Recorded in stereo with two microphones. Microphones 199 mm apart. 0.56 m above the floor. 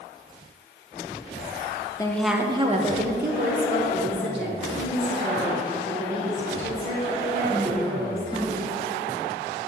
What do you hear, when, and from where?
2.0 s a woman speaking: 20° left (ahead or behind), 0.6 m; by 8.6 s 75° right (ahead or behind), 5 m